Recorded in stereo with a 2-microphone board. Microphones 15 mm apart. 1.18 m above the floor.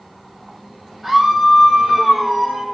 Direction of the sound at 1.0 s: 10° right (ahead or behind).